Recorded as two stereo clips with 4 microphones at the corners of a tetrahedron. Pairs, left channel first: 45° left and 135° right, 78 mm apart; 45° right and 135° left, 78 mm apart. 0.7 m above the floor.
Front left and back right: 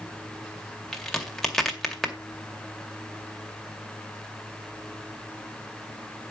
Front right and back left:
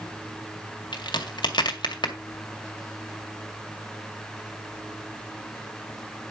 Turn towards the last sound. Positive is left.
turn(degrees=-40)